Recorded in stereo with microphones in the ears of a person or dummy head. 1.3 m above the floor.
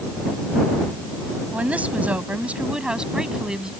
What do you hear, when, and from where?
1.5 s a woman speaking: 5° right (ahead or behind)